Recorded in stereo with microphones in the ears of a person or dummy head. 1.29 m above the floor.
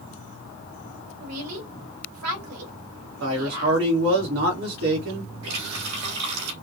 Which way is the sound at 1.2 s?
90° right.